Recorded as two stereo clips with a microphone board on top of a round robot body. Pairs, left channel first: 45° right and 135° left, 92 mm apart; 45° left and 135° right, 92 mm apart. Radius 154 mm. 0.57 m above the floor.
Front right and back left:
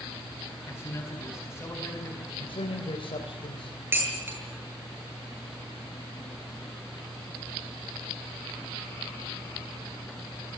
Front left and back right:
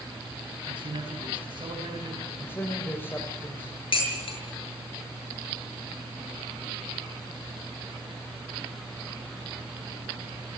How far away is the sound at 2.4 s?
About 3.5 m.